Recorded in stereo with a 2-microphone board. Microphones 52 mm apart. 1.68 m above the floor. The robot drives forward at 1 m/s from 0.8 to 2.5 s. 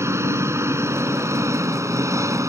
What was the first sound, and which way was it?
An engine running, 65° right (ahead or behind).